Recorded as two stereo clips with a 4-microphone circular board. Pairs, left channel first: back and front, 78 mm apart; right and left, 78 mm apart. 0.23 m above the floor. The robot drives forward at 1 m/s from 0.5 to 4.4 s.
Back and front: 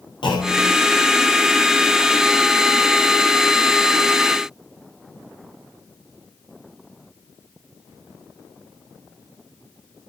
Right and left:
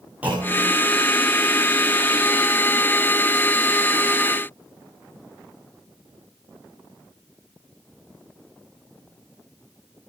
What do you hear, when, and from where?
0.2 s a clunk: 160° left, 8.5 m